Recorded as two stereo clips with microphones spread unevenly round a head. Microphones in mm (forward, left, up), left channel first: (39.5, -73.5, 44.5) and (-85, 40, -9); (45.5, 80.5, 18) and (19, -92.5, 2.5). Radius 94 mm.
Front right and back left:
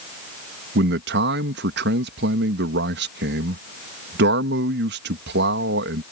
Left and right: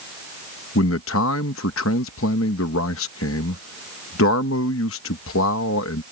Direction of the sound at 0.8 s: 110° left.